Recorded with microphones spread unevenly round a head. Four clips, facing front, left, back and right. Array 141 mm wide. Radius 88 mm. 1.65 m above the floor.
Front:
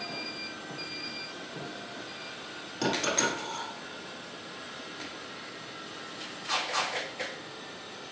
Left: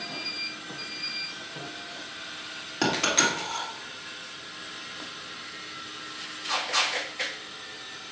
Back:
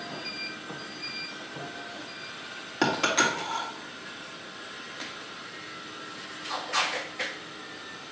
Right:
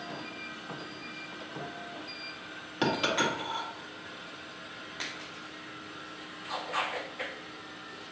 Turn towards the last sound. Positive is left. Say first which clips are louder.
# left 2 dB, back 4 dB
turn(degrees=160)